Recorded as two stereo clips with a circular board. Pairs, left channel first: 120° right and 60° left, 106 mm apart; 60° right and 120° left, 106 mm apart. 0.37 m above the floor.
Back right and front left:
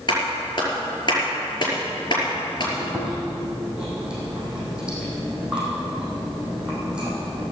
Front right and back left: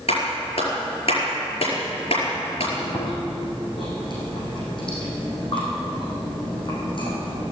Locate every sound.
0.1 s a clap: 75° right, 5 m
2.8 s chewing: 20° right, 5.5 m